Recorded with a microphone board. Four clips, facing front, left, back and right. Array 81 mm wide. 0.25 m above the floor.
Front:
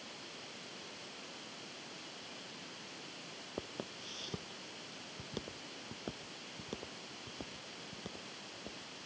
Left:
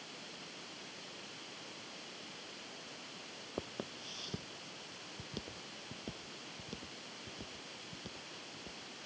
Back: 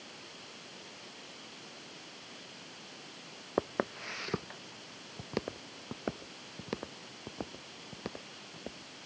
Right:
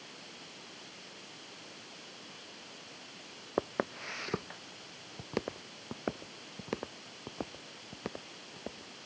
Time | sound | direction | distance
3.6 | footsteps | 135° right | ?